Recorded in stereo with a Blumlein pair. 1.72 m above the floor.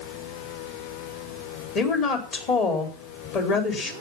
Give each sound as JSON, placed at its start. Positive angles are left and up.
{"t": 1.8, "sound": "a woman speaking", "azimuth_deg": 35, "distance_m": 4.5}